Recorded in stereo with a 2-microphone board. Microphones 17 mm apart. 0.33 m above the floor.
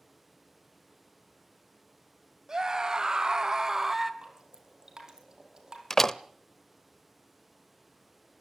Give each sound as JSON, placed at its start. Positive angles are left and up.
{"t": 2.5, "sound": "a scream", "side_deg": -40, "distance_m": 1.9}
{"t": 4.2, "sound": "dripping", "side_deg": -35, "distance_m": 4.0}
{"t": 5.9, "sound": "a door slam", "side_deg": 25, "distance_m": 0.7}